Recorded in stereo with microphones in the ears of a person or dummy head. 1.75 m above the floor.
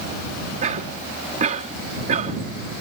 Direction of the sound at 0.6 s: 45° right (ahead or behind).